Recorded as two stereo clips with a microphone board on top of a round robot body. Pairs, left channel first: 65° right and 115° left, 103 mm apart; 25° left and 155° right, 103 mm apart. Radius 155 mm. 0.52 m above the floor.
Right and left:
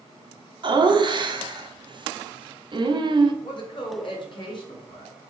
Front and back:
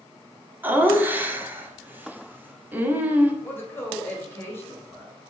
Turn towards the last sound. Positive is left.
turn(degrees=-40)